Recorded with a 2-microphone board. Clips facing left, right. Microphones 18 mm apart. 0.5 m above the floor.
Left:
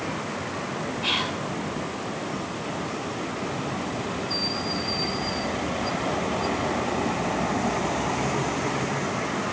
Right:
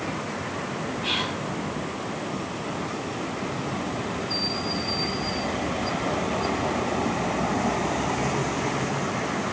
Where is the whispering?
30° left (ahead or behind), 1.4 m.